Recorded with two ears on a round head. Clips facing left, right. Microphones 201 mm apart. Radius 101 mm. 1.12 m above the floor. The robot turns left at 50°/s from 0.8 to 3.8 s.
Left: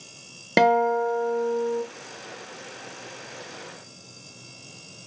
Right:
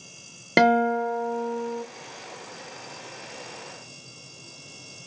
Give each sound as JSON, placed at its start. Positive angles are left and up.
{"t": 0.6, "sound": "a guitar", "azimuth_deg": 180, "distance_m": 0.6}